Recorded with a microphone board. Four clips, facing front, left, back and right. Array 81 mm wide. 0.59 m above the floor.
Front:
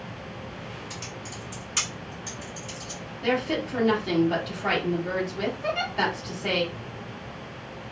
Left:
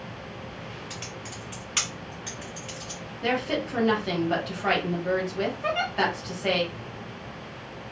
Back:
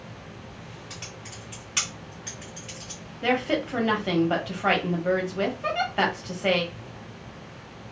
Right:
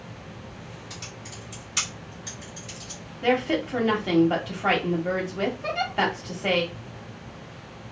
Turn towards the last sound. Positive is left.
turn(degrees=120)